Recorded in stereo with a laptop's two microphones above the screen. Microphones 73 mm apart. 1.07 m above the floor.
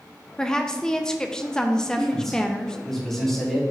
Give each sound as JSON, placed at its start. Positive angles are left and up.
{"t": 0.4, "sound": "a woman speaking", "side_deg": 10, "distance_m": 0.6}
{"t": 2.0, "sound": "a man speaking", "side_deg": 5, "distance_m": 3.0}